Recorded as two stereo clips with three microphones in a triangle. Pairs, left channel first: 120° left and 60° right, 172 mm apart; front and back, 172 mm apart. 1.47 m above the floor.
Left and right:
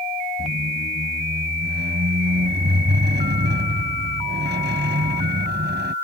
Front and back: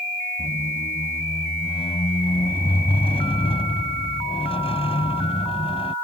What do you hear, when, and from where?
0.4 s a squeak: 55° right